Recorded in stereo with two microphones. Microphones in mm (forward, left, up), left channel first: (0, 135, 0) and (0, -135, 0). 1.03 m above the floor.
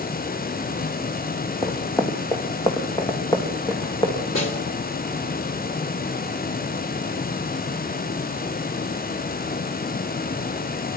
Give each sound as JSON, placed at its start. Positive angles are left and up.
{"t": 1.6, "sound": "running footsteps", "side_deg": 10, "distance_m": 3.0}
{"t": 4.3, "sound": "a snare drum", "side_deg": 80, "distance_m": 3.0}